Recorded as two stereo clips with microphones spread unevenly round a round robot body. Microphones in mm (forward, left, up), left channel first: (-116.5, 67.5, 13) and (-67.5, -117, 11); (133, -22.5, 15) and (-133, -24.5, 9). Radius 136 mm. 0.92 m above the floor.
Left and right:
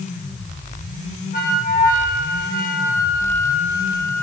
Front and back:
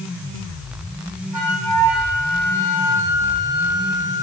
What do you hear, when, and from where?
1.3 s a flute: 150° left, 3.5 m